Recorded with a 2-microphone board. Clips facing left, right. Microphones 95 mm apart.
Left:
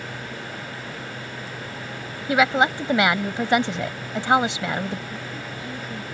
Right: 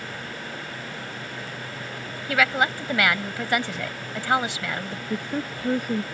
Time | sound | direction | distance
2.3 | a woman speaking | 25° left (ahead or behind) | ?
5.1 | a woman speaking | 70° right (ahead or behind) | ?